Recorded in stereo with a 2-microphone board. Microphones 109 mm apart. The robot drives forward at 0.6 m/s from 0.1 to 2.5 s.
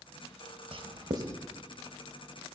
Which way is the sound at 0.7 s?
55° right (ahead or behind).